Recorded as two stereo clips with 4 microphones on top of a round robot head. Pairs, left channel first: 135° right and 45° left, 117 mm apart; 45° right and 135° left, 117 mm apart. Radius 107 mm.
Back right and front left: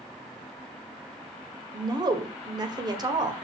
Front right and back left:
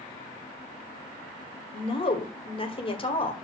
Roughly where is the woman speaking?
Ahead.